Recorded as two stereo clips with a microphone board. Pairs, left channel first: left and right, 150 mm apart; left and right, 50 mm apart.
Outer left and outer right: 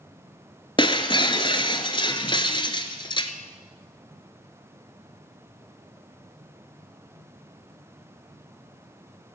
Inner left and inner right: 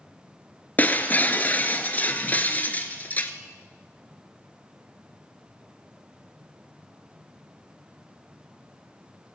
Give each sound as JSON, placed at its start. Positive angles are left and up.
{"t": 0.8, "sound": "breaking glass", "side_deg": 30, "distance_m": 1.0}